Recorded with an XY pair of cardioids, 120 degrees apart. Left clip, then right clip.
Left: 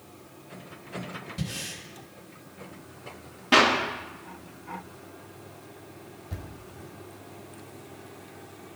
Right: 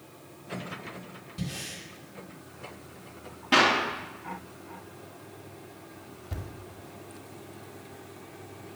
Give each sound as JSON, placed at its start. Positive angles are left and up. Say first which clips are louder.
{"t": 1.4, "sound": "breathing", "louder": "even", "azimuth_deg": 25, "distance_m": 3.5}
{"t": 3.5, "sound": "a clap", "louder": "left 2 dB", "azimuth_deg": 20, "distance_m": 2.0}
{"t": 6.3, "sound": "a thud", "louder": "right 2 dB", "azimuth_deg": -15, "distance_m": 1.9}